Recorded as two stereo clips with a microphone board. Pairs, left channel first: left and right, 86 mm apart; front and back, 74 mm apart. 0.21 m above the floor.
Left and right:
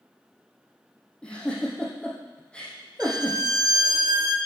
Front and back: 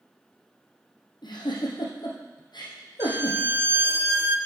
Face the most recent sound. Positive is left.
turn(degrees=-125)